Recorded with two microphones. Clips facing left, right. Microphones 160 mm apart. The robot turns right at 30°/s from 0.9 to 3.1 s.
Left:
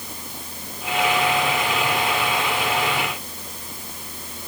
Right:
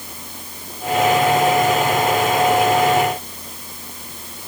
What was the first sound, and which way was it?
Only background noise.